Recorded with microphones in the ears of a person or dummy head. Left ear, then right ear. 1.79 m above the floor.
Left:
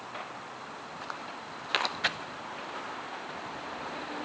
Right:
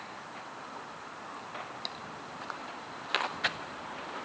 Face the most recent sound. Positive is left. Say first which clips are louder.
# left 5 dB
turn(degrees=0)  # may be behind; listen again after turning